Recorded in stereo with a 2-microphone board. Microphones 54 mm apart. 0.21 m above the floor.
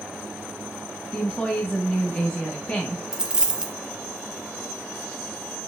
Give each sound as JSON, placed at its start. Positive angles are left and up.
{"t": 1.1, "sound": "a woman speaking", "side_deg": 20, "distance_m": 1.2}
{"t": 3.1, "sound": "a dropped coin", "side_deg": -15, "distance_m": 0.5}